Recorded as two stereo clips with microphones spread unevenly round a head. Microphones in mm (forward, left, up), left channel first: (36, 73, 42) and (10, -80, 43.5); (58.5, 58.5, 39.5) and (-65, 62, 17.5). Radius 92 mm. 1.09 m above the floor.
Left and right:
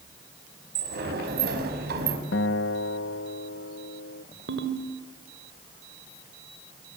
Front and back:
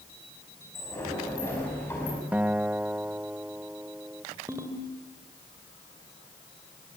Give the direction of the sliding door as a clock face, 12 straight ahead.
3 o'clock.